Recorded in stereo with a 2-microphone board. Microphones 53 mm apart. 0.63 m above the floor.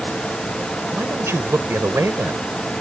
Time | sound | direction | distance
0.9 | a man speaking | 60° right (ahead or behind) | ?